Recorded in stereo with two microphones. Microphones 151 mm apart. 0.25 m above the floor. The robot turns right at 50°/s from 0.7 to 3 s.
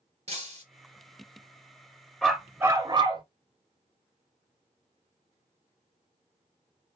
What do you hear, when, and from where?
0.3 s breaking glass: 50° right (ahead or behind), 2.5 m
2.2 s a dog barking: 175° left, 1.1 m; by 3.2 s 145° right, 1.1 m